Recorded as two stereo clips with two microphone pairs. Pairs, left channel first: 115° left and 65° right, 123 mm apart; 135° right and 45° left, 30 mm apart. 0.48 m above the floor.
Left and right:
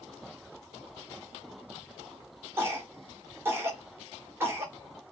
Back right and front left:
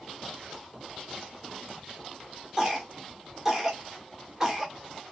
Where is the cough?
15° right, 1.1 m.